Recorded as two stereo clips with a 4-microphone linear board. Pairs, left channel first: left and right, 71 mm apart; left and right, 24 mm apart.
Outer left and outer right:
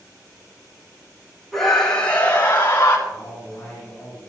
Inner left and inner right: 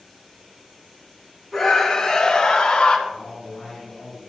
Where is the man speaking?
25° left (ahead or behind), 6.5 m.